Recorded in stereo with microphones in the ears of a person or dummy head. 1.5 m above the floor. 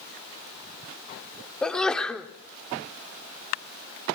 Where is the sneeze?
5° left (ahead or behind), 0.9 m.